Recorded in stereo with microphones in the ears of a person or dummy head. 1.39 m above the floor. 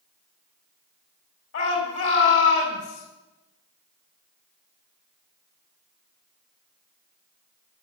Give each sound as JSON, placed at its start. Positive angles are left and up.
{"t": 1.5, "sound": "a shout", "side_deg": 75, "distance_m": 4.0}